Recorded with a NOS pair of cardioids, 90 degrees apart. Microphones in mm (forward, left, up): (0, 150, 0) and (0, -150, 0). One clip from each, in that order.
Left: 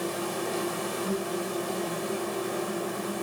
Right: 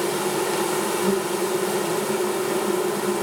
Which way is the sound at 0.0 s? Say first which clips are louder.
Right 8 dB; 70° right.